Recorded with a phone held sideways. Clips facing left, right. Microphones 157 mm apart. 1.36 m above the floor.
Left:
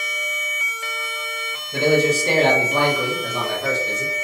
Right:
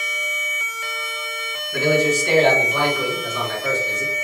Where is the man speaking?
25° left (ahead or behind), 1.3 m; by 4.1 s 75° left (ahead or behind), 1.3 m.